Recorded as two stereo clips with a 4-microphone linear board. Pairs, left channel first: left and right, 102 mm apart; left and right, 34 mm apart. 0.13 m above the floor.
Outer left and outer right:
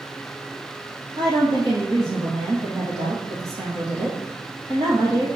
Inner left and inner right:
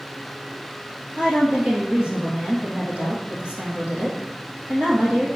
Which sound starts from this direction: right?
A woman speaking, at 1.2 s.